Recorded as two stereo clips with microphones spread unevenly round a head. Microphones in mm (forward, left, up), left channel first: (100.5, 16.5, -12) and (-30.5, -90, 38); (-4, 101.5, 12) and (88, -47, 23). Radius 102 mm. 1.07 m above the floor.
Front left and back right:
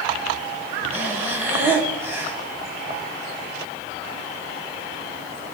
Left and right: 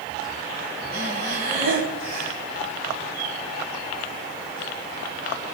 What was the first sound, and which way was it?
Breathing, 80° right.